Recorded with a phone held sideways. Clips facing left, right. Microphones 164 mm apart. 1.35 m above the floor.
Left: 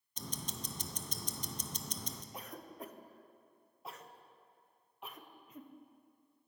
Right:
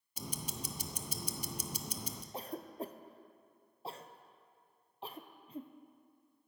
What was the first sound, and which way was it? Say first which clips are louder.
Ticking: right 1 dB; 10° right (ahead or behind).